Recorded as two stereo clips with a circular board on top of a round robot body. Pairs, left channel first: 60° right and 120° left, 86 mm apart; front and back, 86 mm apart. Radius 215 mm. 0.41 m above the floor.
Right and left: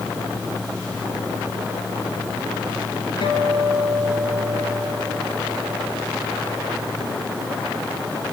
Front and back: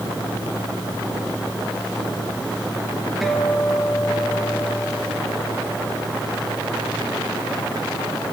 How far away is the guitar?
About 4.5 m.